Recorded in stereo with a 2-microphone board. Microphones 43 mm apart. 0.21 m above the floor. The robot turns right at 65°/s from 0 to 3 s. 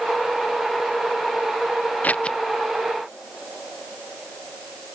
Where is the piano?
I don't hear a piano.